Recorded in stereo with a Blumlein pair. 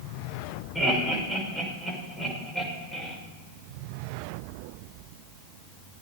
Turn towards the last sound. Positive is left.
turn(degrees=10)